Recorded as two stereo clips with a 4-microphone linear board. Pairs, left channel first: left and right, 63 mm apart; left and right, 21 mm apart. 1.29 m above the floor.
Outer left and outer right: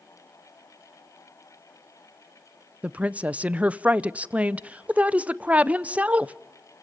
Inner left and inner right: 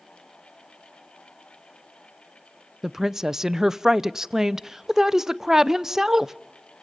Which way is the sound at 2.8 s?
20° right (ahead or behind).